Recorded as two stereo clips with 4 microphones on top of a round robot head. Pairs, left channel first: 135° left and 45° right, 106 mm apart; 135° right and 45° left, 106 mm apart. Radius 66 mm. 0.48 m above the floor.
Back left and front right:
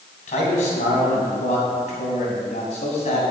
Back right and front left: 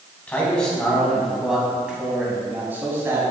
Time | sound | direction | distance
0.3 | a man speaking | 150° left | 3.5 m